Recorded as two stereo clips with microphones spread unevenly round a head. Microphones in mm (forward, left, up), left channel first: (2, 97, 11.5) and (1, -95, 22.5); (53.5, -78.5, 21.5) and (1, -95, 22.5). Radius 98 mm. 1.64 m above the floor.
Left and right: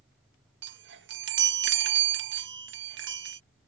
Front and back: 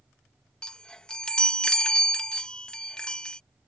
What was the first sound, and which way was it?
A chime, 55° right.